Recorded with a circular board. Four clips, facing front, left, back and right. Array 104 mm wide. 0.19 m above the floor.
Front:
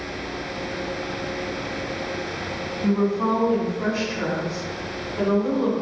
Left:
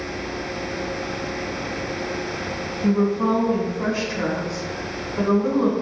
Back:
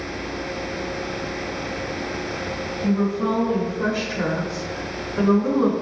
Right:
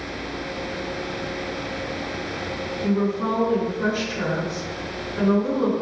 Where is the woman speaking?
25° left, 1.4 m; by 5.7 s 135° left, 1.5 m.